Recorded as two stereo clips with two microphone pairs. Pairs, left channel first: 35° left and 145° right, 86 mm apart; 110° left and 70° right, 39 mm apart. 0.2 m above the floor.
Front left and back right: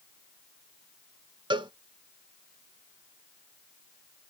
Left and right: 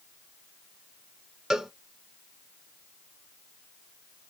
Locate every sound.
1.5 s a cowbell: 145° right, 0.6 m